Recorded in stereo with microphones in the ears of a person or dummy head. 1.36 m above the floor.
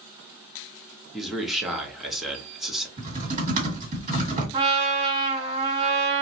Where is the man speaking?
Centre (ahead or behind), 0.6 m.